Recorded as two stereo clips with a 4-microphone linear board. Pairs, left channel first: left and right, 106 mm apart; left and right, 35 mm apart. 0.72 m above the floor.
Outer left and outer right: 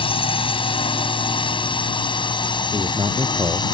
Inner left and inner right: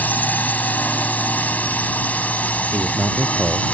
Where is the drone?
55° left (ahead or behind); by 3.8 s 45° left (ahead or behind).